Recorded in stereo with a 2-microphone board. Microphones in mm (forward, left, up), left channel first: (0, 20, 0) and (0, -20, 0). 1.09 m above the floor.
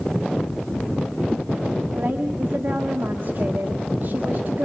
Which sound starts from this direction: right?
A woman speaking, at 1.9 s.